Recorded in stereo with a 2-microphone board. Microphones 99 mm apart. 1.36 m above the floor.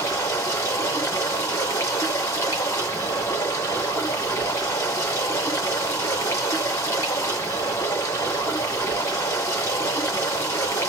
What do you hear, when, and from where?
0.0 s running water: 30° left (ahead or behind), 1.4 m